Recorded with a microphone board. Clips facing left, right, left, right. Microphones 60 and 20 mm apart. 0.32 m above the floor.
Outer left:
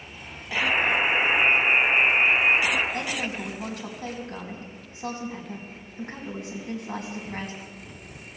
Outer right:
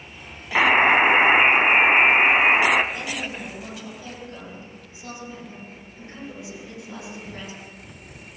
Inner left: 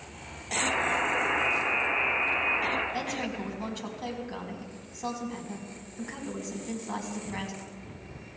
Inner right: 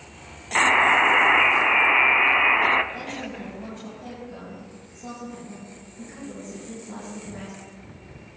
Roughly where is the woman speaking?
Left.